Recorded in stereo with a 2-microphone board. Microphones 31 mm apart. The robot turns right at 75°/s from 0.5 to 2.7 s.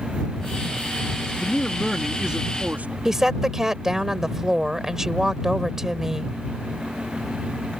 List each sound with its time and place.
1.4 s a man speaking: 140° left; by 3.0 s 120° right
3.0 s a woman speaking: 15° right (ahead or behind)